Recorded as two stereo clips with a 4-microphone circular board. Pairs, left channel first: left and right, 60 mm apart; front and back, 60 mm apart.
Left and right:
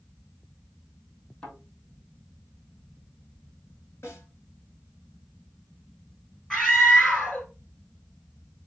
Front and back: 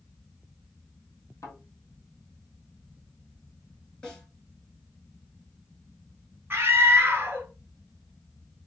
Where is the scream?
175° left, 1.1 m.